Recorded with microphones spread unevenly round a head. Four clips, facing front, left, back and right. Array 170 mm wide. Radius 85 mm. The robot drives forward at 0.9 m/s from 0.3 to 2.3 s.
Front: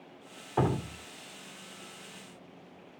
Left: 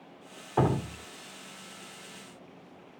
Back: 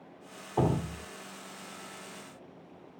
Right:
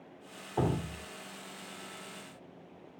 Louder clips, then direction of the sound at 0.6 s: Left 5 dB, back 1 dB; 95° left.